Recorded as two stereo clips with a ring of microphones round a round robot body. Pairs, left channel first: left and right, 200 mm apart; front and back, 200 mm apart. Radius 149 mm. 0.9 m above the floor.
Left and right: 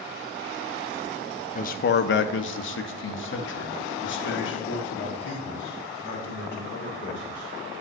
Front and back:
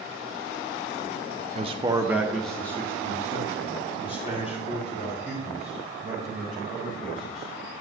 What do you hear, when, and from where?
1.6 s a man speaking: 130° left, 0.5 m; by 7.8 s 60° left, 4 m